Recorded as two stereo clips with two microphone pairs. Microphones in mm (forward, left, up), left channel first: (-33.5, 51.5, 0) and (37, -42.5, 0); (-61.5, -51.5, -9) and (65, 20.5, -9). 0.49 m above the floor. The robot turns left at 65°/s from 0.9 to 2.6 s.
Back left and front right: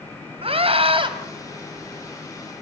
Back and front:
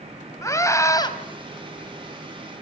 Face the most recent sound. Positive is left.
turn(degrees=165)